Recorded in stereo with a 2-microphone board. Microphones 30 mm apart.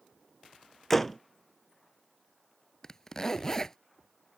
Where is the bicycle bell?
I don't hear a bicycle bell.